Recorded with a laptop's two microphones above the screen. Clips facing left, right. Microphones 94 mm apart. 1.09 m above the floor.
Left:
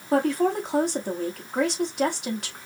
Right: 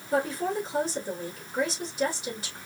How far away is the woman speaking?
About 1.8 m.